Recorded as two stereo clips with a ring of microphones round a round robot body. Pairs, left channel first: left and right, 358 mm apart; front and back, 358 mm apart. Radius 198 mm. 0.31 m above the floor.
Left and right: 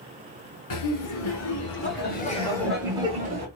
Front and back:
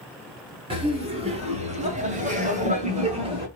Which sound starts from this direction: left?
Laughter, at 0.7 s.